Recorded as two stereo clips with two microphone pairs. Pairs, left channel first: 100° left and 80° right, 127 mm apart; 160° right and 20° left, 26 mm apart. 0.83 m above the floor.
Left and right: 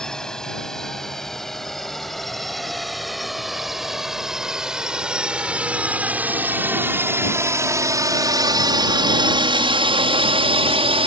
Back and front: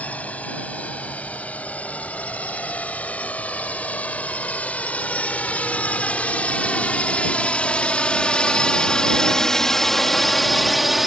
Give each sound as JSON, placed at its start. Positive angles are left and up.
{"t": 0.0, "sound": "a drone", "azimuth_deg": -175}